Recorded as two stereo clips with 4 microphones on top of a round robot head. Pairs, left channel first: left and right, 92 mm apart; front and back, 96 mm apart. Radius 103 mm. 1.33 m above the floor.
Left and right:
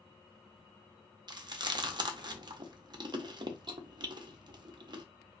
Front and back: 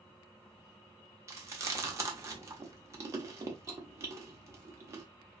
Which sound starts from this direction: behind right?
Chewing, at 1.3 s.